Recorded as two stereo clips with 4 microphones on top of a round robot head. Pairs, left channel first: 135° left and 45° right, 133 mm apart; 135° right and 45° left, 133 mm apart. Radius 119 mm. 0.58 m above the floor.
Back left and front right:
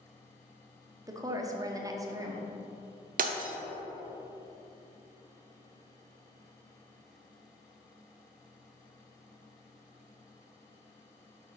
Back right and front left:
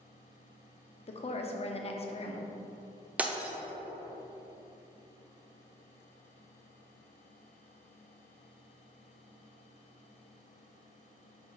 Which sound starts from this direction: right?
A woman speaking, at 1.1 s.